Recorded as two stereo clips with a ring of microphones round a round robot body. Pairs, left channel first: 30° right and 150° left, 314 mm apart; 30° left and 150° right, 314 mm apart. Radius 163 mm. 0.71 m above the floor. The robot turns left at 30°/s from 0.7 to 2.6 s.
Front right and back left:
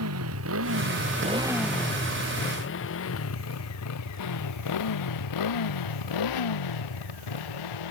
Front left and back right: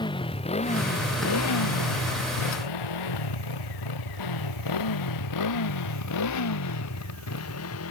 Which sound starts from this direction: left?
A motorcycle, at 0.0 s.